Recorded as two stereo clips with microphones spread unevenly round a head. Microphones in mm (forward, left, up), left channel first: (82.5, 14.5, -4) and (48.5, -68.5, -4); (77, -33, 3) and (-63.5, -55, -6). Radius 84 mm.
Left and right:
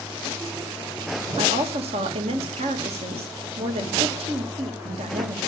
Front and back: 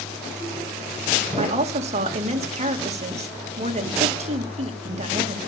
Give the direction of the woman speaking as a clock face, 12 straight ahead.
4 o'clock.